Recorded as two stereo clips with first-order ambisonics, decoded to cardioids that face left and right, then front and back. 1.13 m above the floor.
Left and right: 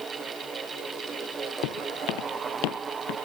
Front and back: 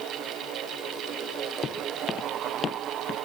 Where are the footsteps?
70° left; by 3.2 s 65° left.